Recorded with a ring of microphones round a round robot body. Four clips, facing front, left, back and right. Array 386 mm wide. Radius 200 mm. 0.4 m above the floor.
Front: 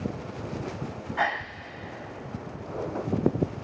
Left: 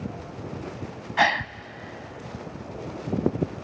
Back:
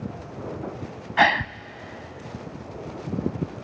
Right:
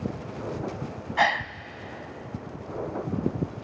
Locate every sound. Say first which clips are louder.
1.2 s a gasp: left 1 dB, back 8 dB; 175° left, 0.5 m